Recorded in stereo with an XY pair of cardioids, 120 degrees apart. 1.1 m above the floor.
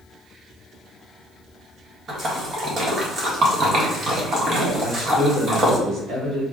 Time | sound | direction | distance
2.1 | a splash | 35° right | 1.6 m
4.8 | a man speaking | 40° right | 2.5 m